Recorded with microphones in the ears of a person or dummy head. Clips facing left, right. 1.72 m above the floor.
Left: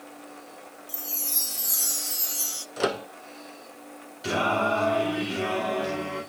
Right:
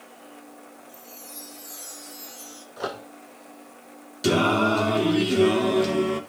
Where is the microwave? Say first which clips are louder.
Left 6 dB; 30° left (ahead or behind), 0.5 m.